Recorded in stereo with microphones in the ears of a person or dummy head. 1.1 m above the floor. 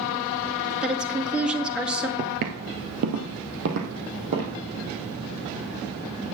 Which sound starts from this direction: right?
Footsteps, at 2.2 s.